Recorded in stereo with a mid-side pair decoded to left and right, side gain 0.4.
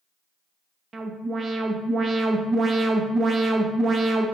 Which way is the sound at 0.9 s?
45° right.